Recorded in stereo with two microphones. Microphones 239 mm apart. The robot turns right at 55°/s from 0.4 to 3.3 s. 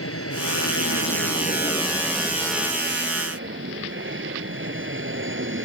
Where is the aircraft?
80° left; by 5.6 s 120° right.